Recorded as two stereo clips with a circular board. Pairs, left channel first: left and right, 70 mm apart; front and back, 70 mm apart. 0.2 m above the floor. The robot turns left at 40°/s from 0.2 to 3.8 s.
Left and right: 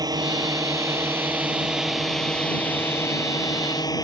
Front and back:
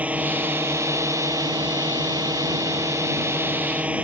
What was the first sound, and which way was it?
A drone, 110° right.